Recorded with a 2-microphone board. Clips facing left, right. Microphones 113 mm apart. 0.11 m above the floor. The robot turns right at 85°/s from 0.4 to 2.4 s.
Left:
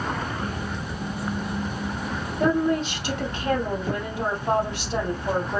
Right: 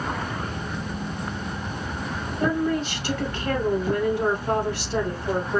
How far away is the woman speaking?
About 2.5 m.